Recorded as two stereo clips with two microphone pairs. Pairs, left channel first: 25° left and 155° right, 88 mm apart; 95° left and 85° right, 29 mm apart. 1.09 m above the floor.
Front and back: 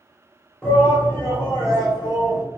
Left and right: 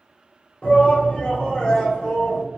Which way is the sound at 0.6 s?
105° left.